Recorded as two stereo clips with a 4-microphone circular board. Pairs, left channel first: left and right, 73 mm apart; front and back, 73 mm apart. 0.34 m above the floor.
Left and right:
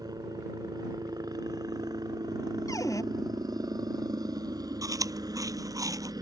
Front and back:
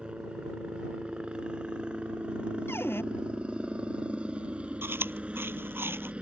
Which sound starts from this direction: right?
A helicopter, at 0.0 s.